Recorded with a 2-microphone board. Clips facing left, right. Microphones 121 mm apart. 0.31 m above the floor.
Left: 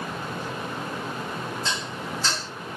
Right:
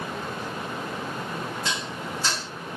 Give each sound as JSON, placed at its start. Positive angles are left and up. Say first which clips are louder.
{"t": 1.6, "sound": "dishes clattering", "louder": "even", "side_deg": -10, "distance_m": 1.7}